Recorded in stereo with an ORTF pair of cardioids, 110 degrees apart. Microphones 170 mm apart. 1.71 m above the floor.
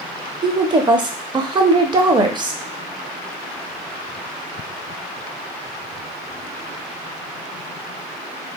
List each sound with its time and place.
0.4 s a woman speaking: 25° right, 0.6 m